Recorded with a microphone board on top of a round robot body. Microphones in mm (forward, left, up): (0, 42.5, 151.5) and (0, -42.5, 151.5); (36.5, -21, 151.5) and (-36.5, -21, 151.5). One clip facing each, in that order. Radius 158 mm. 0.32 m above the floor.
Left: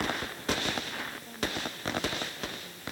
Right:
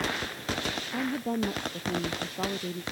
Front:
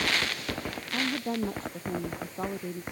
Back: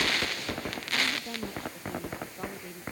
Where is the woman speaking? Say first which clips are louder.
Right 11 dB, front 3 dB; 60° right.